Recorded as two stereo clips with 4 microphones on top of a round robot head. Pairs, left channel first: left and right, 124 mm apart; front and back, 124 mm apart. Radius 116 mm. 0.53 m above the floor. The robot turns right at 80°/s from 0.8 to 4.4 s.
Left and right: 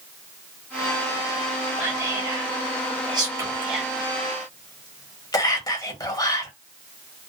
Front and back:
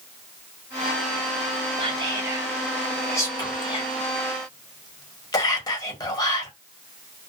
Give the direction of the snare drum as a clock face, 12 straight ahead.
No snare drum in this recording.